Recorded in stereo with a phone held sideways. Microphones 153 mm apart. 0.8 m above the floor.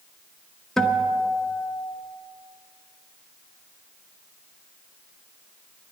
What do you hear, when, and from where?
0.8 s a guitar: 5° left (ahead or behind), 0.8 m